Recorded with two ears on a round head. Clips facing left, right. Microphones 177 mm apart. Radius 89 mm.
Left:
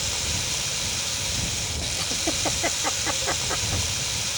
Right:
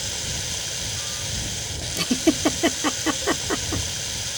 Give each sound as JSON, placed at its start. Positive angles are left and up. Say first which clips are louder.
{"t": 0.0, "sound": "running water", "louder": "left 1 dB", "side_deg": -5}
{"t": 2.0, "sound": "a giggle", "louder": "right 12 dB", "side_deg": -65}